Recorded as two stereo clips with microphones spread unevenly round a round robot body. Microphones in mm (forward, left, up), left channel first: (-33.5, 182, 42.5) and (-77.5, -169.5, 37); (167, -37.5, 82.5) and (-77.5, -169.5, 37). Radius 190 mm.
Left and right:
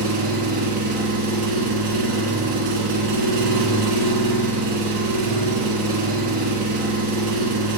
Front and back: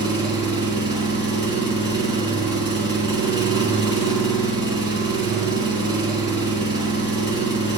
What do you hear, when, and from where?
0.0 s an engine running: 75° right, 3 m